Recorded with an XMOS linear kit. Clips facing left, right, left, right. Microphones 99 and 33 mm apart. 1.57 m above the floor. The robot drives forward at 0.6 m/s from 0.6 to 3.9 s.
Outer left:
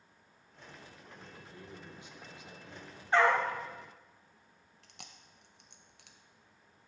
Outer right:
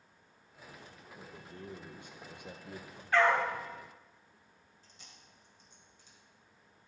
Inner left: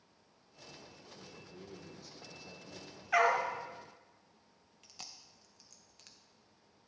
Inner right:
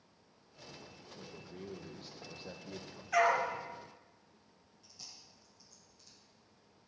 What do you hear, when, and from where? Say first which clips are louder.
1.2 s a man speaking: outer right 4 dB, inner right 4 dB; 35° right (ahead or behind), 1.4 m; by 3.0 s 65° right (ahead or behind), 0.9 m
3.1 s a dog barking: even, even; 25° left (ahead or behind), 1.3 m
4.8 s chewing: outer left 6 dB, inner left 3 dB; 80° left, 0.7 m